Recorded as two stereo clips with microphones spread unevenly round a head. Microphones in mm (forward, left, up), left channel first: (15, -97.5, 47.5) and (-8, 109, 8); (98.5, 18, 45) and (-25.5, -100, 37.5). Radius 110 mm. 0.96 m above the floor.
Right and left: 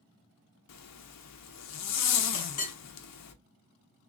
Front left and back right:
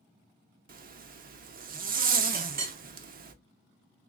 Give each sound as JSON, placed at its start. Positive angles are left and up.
{"t": 0.7, "sound": "a zipper", "azimuth_deg": -95, "distance_m": 0.6}
{"t": 2.3, "sound": "a clink", "azimuth_deg": -105, "distance_m": 1.1}